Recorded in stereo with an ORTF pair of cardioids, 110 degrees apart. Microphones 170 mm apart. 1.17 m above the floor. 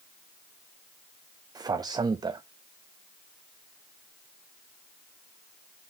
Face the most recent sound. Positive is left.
turn(degrees=-25)